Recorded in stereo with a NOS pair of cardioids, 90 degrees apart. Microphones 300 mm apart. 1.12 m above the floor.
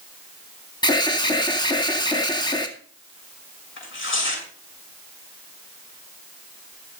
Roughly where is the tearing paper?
Ahead left.